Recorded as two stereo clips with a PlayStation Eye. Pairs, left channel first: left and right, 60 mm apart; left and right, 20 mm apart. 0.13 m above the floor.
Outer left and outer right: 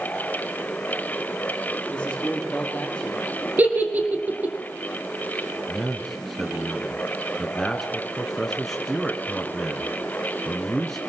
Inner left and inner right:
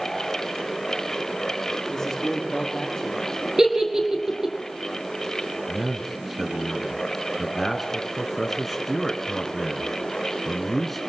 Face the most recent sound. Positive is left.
turn(degrees=5)  # may be behind; listen again after turning